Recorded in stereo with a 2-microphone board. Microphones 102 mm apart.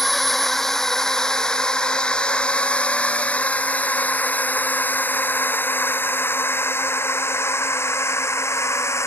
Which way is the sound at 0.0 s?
Centre (ahead or behind).